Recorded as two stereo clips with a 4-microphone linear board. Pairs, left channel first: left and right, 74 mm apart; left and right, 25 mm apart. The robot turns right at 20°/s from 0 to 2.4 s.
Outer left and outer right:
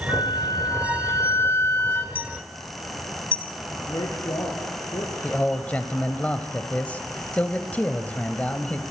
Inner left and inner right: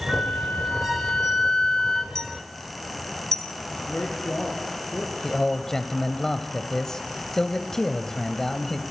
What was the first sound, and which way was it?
A flute, 110° left.